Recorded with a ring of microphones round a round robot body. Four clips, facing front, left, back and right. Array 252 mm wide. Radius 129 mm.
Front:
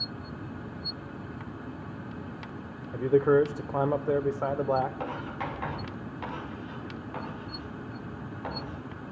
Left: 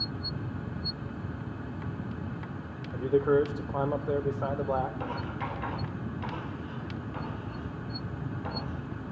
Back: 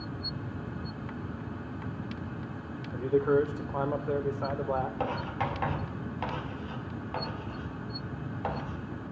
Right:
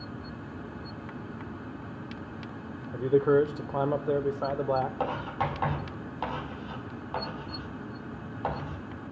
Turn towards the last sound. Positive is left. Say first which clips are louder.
# right 5 dB, back 2 dB
turn(degrees=-120)